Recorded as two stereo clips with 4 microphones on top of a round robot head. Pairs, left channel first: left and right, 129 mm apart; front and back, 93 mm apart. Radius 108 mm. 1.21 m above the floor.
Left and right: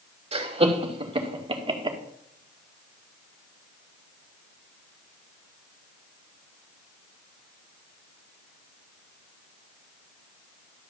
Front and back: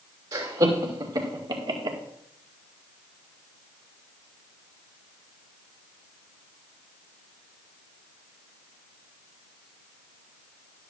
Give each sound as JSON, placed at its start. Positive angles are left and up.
{"t": 0.3, "sound": "laughter", "azimuth_deg": -130, "distance_m": 3.0}